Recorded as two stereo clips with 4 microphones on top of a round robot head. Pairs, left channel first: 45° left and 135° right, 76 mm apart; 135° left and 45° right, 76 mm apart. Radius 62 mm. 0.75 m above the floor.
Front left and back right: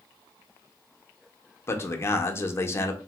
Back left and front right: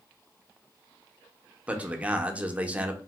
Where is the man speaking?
20° left, 0.6 m.